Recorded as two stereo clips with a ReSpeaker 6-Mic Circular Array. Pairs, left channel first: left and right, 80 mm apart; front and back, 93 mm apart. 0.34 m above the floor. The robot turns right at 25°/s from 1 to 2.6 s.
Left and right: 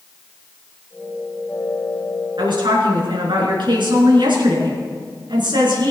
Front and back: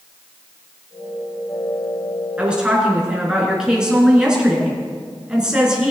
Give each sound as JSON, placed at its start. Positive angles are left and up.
{"t": 2.4, "sound": "a woman speaking", "azimuth_deg": -105, "distance_m": 4.0}